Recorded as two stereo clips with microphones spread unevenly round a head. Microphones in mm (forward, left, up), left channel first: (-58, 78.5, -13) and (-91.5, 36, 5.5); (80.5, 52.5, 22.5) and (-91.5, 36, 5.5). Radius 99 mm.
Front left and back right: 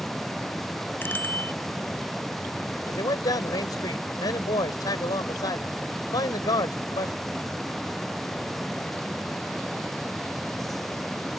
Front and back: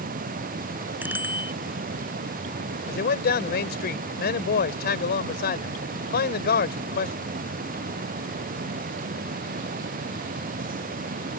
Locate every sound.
1.0 s a bicycle bell: 105° left
2.9 s a man speaking: 35° left